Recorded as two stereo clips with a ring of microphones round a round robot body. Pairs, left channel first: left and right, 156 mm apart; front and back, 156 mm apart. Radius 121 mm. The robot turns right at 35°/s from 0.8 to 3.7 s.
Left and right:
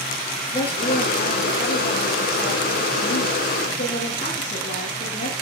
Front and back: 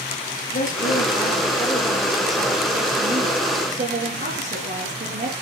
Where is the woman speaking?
35° left, 9 m; by 5.3 s 140° left, 9 m.